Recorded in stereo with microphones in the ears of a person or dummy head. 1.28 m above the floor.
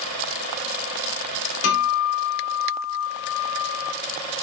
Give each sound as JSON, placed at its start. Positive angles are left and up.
{"t": 1.6, "sound": "a guitar", "side_deg": 70, "distance_m": 4.0}